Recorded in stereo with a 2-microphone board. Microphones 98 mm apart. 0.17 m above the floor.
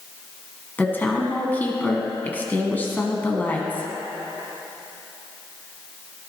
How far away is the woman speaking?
About 1.4 m.